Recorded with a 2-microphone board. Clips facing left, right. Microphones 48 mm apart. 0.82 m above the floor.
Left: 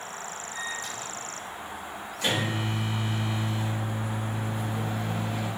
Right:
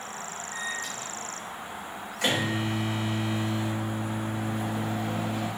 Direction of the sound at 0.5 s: 75° right (ahead or behind).